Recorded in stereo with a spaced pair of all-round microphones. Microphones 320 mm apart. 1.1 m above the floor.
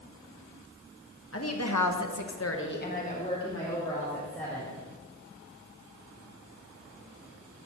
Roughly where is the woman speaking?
Left.